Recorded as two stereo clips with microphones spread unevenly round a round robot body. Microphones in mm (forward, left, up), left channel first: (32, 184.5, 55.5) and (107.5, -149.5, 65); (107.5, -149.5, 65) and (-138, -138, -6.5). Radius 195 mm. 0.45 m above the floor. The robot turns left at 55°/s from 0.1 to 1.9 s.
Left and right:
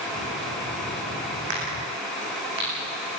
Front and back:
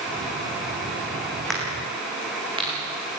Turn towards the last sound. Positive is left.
turn(degrees=-115)